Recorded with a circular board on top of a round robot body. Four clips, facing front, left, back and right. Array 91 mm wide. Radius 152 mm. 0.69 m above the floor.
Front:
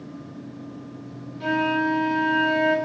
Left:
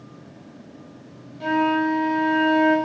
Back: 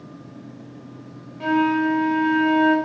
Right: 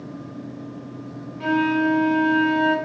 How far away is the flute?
About 1.2 m.